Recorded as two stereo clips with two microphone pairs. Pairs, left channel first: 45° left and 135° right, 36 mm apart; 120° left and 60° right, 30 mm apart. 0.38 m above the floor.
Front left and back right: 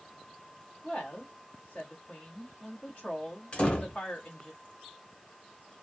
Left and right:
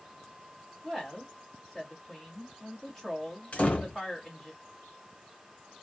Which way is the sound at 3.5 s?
90° left.